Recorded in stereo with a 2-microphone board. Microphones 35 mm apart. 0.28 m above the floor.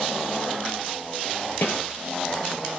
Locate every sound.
1.6 s a snare drum: 60° left (ahead or behind), 4 m